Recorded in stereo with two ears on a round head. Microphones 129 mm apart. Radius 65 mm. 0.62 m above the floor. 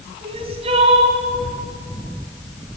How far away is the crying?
About 3 m.